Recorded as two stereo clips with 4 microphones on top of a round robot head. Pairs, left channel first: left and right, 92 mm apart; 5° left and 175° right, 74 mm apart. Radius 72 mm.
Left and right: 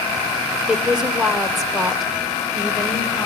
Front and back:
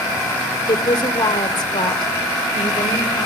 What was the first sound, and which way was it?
A woman speaking, 10° right.